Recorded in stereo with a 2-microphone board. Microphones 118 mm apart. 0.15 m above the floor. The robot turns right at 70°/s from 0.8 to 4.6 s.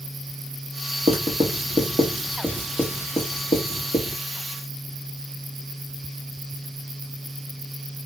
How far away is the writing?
About 1.2 m.